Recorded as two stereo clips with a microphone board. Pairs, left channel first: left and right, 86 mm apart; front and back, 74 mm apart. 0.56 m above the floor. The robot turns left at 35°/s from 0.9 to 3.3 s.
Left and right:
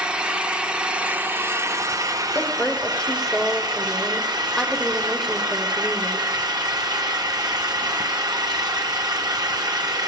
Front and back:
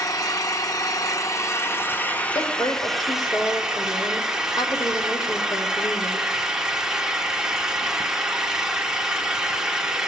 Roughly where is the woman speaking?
Ahead left.